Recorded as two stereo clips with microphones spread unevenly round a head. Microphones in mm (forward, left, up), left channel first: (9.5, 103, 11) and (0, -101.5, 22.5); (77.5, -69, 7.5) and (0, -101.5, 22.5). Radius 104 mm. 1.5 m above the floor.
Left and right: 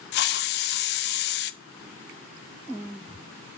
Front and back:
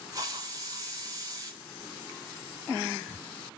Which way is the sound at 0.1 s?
130° left.